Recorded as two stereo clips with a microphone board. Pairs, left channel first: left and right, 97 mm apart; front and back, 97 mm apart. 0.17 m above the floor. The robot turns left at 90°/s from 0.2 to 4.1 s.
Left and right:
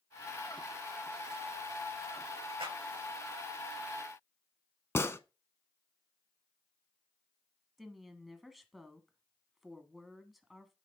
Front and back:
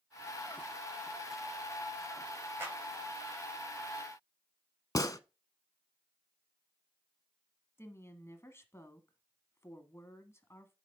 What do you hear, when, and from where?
2.6 s a clap: 115° right, 7.5 m; by 2.8 s 130° right, 7.5 m
5.0 s a gunshot: 35° left, 0.6 m
7.8 s a woman speaking: 5° right, 1.5 m